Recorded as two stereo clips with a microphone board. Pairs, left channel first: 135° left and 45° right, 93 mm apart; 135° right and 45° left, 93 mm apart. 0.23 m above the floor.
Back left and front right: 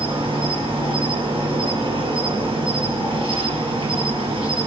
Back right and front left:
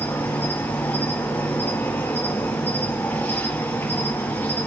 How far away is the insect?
About 4 m.